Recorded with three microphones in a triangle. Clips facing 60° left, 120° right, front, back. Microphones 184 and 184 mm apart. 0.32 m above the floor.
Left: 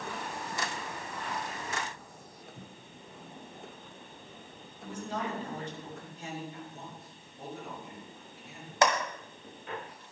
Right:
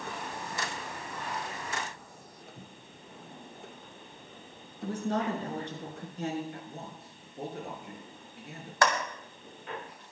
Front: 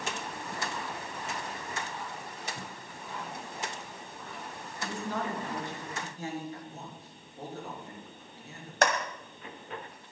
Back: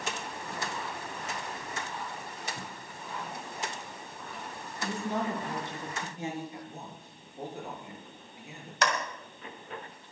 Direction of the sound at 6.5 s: 110° right.